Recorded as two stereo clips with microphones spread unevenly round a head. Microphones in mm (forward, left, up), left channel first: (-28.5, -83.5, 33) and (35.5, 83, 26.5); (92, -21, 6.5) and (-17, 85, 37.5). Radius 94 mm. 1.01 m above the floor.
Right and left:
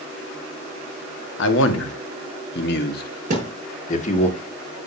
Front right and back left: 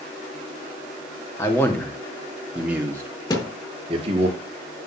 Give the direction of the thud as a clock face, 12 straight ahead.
11 o'clock.